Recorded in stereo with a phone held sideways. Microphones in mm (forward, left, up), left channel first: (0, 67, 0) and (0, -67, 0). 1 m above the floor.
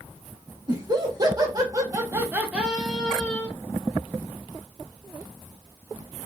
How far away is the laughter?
About 1.4 m.